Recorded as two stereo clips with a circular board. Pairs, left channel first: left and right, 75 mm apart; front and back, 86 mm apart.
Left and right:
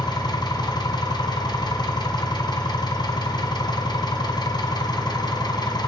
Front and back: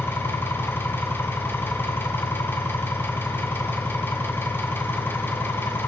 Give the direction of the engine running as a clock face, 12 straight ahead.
10 o'clock.